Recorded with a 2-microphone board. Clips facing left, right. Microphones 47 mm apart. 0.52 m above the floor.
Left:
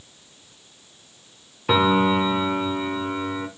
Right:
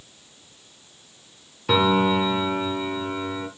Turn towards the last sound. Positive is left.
turn(degrees=15)  # may be behind; listen again after turning